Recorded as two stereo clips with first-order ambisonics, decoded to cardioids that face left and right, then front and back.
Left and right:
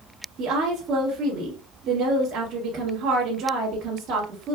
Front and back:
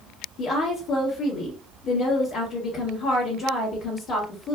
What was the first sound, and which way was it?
A woman speaking, 35° right.